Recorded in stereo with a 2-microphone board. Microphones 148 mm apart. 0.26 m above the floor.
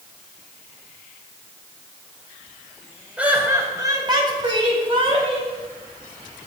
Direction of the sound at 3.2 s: 10° right (ahead or behind).